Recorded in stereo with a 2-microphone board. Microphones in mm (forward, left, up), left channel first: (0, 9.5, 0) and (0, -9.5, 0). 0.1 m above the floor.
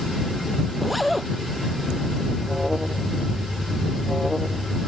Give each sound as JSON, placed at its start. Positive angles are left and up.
{"t": 0.8, "sound": "a zipper", "side_deg": -5}
{"t": 2.4, "sound": "an alarm", "side_deg": -20}